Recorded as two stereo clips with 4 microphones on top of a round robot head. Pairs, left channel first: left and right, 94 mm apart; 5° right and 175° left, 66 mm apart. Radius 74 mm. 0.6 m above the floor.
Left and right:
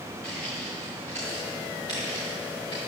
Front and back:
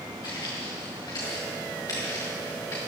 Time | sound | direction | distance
0.2 | footsteps | 10° left | 4 m